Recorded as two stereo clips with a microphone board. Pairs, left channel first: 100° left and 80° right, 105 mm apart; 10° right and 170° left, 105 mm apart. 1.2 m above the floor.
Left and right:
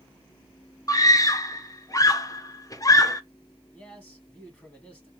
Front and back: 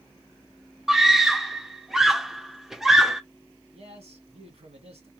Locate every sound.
0.9 s a scream: 85° left, 0.6 m
3.7 s a man speaking: 175° left, 2 m